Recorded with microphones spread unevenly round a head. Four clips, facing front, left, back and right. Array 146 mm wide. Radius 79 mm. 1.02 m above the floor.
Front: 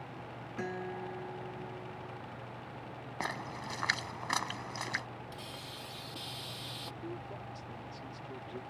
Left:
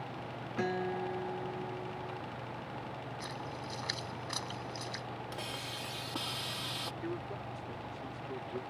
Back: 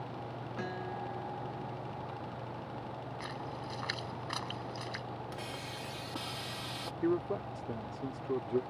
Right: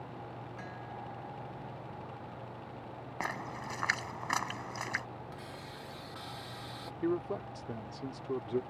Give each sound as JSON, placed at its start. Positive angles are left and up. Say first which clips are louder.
{"t": 0.6, "sound": "a guitar", "louder": "left 14 dB, front 1 dB", "azimuth_deg": 80}
{"t": 3.2, "sound": "a splash", "louder": "right 3 dB, front 6 dB", "azimuth_deg": -35}
{"t": 5.3, "sound": "a hiss", "louder": "left 4 dB, back 4 dB", "azimuth_deg": 125}
{"t": 7.0, "sound": "a man speaking", "louder": "right 10 dB, back 14 dB", "azimuth_deg": -150}